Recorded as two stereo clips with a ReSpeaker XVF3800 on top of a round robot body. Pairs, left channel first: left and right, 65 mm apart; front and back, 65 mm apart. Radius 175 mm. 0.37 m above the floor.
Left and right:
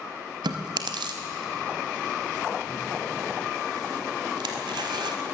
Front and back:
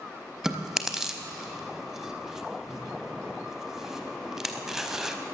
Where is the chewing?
95° right, 0.7 m.